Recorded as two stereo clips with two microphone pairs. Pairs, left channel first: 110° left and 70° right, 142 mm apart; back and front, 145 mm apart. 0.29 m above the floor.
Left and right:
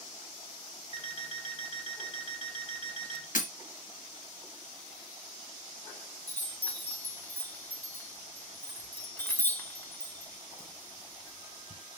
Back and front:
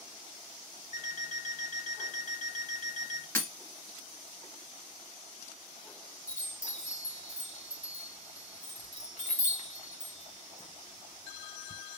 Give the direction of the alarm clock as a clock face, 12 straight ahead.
7 o'clock.